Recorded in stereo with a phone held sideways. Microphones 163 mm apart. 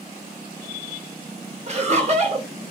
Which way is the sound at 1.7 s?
45° right (ahead or behind).